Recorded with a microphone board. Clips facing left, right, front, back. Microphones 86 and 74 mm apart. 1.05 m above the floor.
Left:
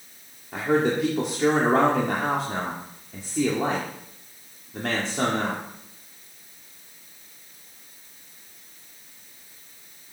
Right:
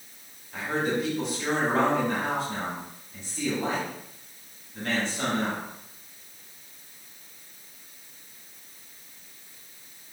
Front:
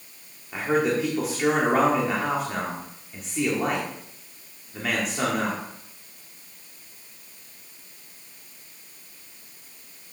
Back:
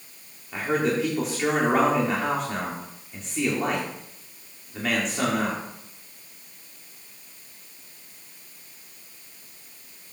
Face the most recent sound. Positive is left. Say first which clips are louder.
# left 5 dB, front 1 dB
turn(degrees=85)